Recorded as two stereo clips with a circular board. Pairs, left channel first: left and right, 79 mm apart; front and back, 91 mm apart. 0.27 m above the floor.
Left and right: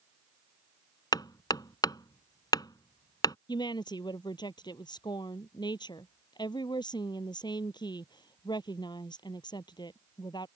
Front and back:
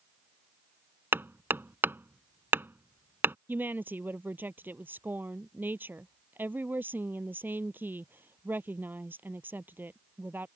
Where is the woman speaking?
110° left.